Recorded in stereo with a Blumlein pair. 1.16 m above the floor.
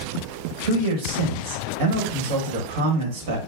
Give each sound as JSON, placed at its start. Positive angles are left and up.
{"t": 0.6, "sound": "a man speaking", "azimuth_deg": -50, "distance_m": 1.2}